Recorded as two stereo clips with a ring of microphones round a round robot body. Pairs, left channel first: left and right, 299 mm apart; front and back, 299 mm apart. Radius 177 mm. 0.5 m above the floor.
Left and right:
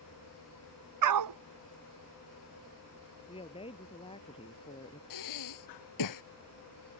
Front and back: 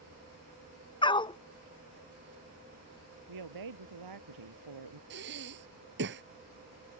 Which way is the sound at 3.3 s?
165° left.